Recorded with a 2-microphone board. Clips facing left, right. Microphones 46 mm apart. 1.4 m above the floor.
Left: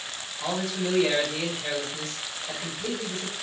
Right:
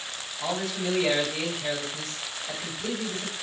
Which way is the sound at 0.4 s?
Centre (ahead or behind).